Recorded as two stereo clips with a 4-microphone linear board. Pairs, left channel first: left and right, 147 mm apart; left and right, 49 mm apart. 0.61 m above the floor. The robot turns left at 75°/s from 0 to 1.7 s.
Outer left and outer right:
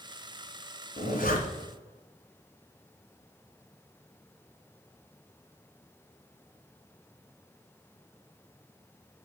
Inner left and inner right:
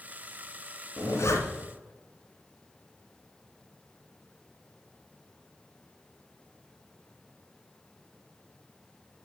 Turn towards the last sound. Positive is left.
turn(degrees=60)  # may be behind; listen again after turning